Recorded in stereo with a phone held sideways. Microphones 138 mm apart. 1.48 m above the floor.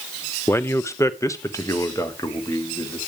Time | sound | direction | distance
0.5 | a man speaking | 15° left (ahead or behind) | 0.6 m